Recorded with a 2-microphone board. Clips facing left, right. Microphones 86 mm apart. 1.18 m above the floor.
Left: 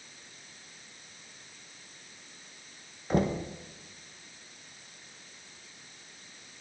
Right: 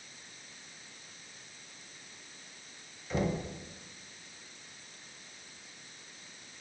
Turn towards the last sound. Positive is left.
turn(degrees=50)  # may be behind; listen again after turning